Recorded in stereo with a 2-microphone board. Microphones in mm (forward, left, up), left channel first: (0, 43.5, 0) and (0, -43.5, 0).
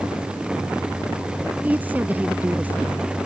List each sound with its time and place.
1.6 s a woman speaking: 20° right (ahead or behind)